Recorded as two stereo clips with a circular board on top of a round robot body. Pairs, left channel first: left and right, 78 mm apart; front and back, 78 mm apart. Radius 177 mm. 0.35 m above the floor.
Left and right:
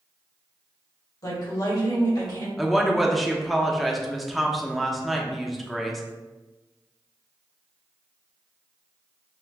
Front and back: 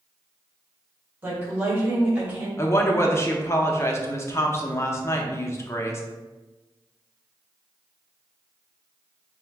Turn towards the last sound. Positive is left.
turn(degrees=0)